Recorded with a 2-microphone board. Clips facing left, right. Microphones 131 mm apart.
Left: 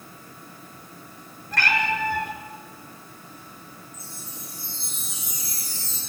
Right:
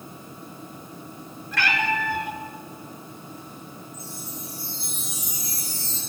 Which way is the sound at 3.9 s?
15° right (ahead or behind).